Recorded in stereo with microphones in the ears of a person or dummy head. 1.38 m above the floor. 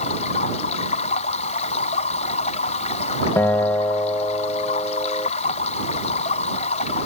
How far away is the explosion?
I don't hear an explosion.